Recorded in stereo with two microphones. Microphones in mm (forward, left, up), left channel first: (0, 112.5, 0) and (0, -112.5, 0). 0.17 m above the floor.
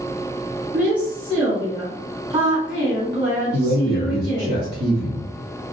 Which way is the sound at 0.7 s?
20° right (ahead or behind).